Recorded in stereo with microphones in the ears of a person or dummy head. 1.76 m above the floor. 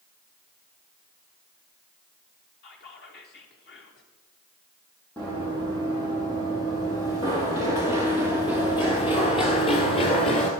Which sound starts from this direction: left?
Whispering, at 2.6 s.